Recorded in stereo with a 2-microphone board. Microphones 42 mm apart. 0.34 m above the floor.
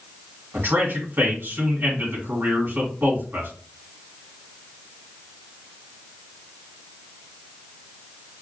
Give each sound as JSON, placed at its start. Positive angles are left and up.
{"t": 0.5, "sound": "a man speaking", "side_deg": -60, "distance_m": 3.5}